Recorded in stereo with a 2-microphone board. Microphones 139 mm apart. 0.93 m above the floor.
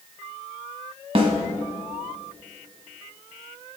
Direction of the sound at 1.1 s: 45° right (ahead or behind).